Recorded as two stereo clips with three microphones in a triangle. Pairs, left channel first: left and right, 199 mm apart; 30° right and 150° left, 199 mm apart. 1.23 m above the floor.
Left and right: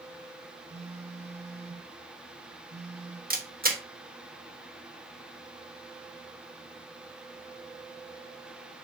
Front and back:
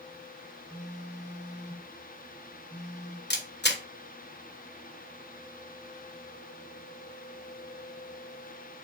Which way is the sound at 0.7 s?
100° right.